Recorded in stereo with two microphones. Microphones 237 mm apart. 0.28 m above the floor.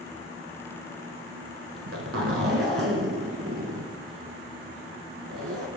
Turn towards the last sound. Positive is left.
turn(degrees=-70)  # may be behind; listen again after turning